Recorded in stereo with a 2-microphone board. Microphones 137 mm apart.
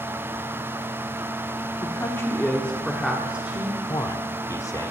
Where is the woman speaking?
25° left (ahead or behind), 1.5 m; by 3.8 s 15° right (ahead or behind), 1.7 m.